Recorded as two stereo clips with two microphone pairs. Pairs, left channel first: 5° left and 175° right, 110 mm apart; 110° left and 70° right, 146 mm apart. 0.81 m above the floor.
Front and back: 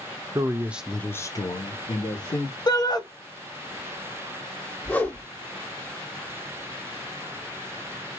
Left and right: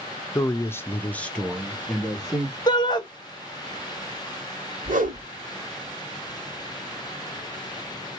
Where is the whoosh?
70° right, 1.1 m.